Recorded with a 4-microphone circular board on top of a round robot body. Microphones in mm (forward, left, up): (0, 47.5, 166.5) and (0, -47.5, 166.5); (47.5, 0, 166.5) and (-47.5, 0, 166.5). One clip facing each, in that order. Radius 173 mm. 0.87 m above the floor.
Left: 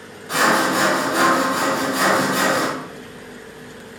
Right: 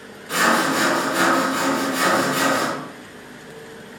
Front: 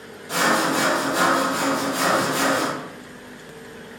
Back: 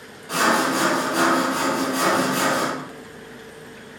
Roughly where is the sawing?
Behind left.